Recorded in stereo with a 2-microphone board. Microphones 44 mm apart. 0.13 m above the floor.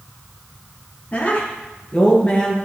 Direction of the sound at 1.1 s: 30° left (ahead or behind).